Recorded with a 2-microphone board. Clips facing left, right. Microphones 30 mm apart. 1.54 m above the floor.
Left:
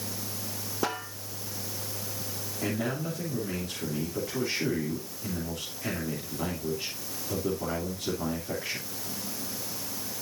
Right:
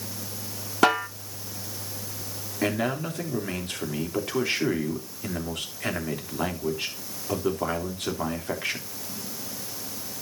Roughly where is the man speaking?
Right.